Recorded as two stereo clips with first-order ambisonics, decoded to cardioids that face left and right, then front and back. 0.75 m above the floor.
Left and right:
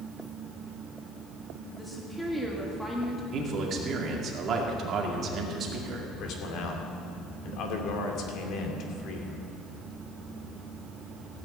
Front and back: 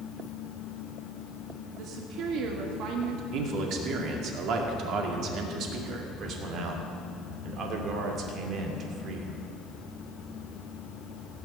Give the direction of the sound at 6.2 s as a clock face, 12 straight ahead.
8 o'clock.